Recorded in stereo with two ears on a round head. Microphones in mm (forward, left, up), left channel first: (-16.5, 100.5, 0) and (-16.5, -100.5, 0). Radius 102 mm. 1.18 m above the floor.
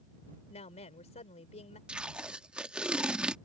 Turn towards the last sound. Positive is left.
turn(degrees=-5)  # may be behind; listen again after turning